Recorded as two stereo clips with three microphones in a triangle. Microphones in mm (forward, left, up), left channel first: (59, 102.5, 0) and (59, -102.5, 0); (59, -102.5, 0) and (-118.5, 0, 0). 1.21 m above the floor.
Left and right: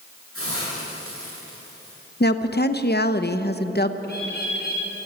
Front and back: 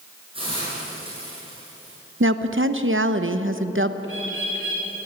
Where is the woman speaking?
130° left, 0.9 m.